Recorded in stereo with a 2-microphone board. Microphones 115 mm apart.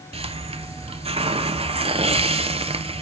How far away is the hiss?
About 1.1 m.